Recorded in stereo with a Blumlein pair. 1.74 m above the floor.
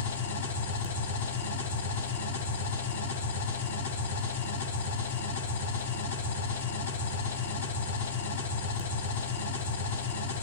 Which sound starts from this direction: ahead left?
An engine running, at 0.0 s.